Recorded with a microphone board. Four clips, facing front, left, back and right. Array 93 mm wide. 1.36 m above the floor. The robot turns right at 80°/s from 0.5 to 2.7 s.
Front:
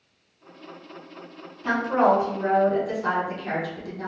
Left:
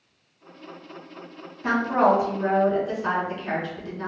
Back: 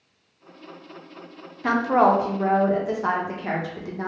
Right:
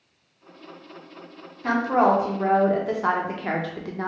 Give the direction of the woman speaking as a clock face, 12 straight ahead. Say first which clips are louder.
Even, back 2 dB; 6 o'clock.